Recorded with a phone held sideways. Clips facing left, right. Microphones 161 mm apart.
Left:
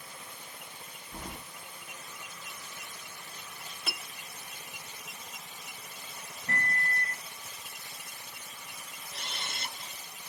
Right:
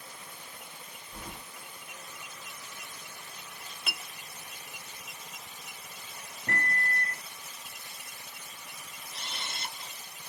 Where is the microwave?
75° right (ahead or behind), 0.8 m.